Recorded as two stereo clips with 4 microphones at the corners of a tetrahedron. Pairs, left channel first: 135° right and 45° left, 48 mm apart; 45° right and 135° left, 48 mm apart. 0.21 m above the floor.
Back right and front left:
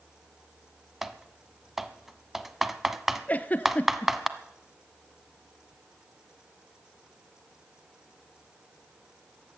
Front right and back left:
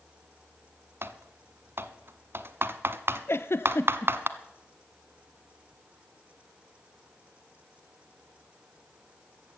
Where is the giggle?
75° right, 0.7 m.